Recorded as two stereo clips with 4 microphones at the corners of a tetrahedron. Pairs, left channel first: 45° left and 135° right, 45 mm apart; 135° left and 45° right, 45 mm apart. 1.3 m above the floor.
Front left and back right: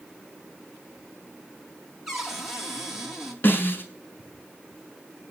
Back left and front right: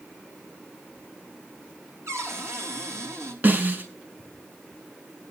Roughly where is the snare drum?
Ahead.